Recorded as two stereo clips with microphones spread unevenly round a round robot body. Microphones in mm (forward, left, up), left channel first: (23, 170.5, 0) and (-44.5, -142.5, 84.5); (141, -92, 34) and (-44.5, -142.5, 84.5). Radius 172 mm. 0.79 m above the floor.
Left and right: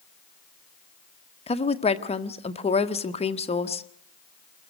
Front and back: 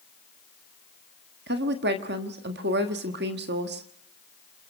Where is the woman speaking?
145° left, 1.5 m.